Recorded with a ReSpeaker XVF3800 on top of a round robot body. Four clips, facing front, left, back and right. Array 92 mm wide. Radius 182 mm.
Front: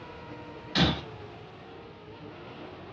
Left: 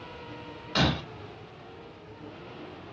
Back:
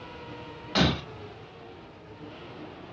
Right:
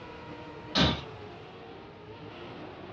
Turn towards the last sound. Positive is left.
turn(degrees=160)